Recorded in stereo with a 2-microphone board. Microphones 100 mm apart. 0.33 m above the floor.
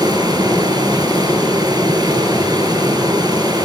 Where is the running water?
45° right (ahead or behind), 5.5 m.